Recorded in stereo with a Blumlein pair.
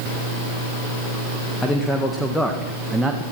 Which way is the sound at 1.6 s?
10° left.